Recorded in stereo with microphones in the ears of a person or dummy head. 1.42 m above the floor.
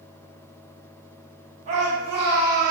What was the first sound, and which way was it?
A shout, 40° right (ahead or behind).